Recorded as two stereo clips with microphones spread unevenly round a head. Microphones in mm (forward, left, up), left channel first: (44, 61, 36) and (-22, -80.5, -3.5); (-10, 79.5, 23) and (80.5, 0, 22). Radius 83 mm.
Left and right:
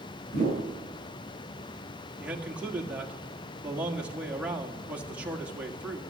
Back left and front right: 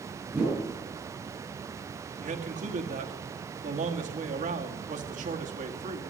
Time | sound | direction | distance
0.3 | a whoosh | 35° left | 8 m
2.2 | a man speaking | 40° right | 1.8 m